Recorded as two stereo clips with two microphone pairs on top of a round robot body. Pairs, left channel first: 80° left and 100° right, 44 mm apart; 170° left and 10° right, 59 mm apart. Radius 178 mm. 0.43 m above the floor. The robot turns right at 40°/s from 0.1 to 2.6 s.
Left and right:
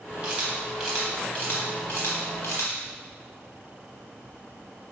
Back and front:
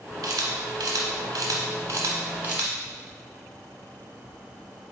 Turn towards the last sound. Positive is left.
turn(degrees=60)